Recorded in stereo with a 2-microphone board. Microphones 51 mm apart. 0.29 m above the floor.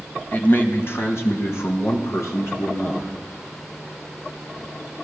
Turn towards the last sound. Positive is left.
turn(degrees=75)  # may be behind; listen again after turning